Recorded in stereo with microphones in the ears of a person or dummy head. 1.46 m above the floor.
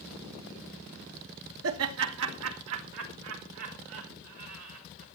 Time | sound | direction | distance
1.6 | laughter | 75° right (ahead or behind) | 1.3 m